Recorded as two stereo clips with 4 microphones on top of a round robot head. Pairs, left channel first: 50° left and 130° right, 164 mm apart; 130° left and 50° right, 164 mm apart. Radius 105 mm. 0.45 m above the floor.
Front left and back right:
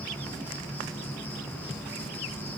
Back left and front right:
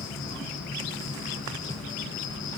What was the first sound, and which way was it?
An insect, 130° left.